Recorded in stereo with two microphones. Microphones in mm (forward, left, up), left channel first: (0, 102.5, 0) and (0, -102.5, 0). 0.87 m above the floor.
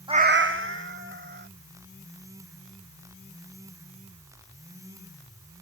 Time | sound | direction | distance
0.1 | a cat meowing | 20° right (ahead or behind) | ?